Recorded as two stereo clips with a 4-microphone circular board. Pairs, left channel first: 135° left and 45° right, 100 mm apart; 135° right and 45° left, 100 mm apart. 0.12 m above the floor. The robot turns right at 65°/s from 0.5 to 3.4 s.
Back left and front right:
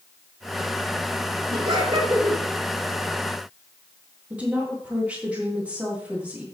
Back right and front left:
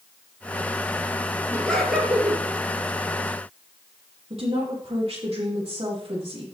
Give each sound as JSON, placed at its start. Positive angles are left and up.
{"t": 1.5, "sound": "laughter", "azimuth_deg": -70, "distance_m": 3.0}
{"t": 4.3, "sound": "a woman speaking", "azimuth_deg": 30, "distance_m": 4.0}